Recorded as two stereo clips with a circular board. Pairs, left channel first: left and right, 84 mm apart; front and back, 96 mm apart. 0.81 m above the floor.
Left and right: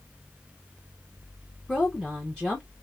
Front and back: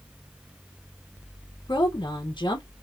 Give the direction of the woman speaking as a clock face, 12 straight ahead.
12 o'clock.